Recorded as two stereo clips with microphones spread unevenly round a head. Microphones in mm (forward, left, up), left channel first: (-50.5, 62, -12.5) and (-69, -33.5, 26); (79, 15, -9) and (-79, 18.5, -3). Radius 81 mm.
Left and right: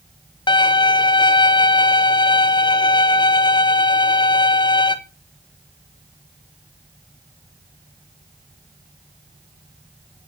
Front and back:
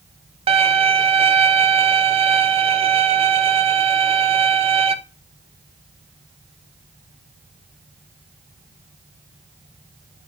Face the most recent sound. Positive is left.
turn(degrees=125)